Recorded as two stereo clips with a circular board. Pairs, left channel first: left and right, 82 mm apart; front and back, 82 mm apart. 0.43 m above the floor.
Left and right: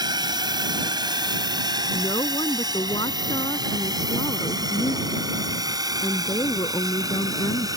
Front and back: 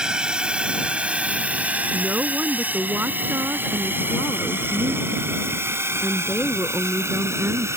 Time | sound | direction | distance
0.0 | a drone | 100° right | ?
1.9 | a woman speaking | 115° left | ?